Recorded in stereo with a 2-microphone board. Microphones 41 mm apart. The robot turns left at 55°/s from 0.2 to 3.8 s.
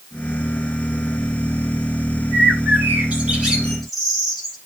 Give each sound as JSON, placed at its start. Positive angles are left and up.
{"t": 2.3, "sound": "a bird", "azimuth_deg": -100, "distance_m": 9.0}